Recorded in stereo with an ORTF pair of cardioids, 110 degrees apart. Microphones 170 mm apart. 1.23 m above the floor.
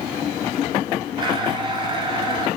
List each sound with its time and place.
1.2 s a blender: 30° right, 4.5 m